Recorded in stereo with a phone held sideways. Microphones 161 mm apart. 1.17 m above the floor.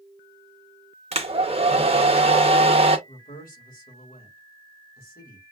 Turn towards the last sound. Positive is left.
turn(degrees=65)  # may be behind; listen again after turning